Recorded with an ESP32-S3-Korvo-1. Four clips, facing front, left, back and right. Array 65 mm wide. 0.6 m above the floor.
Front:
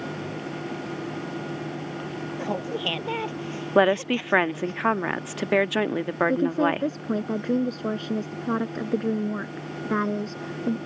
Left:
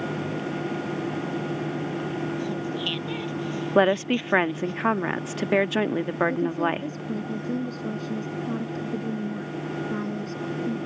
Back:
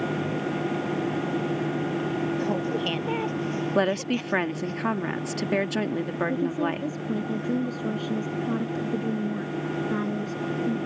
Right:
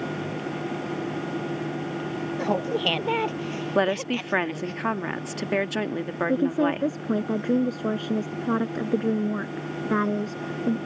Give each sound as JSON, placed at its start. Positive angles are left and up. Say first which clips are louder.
{"t": 2.4, "sound": "laughter", "louder": "right 4 dB, back 2 dB", "azimuth_deg": -80}
{"t": 3.8, "sound": "a woman speaking", "louder": "left 4 dB, front 6 dB", "azimuth_deg": 30}
{"t": 6.3, "sound": "a woman speaking", "louder": "right 2 dB, front 5 dB", "azimuth_deg": -50}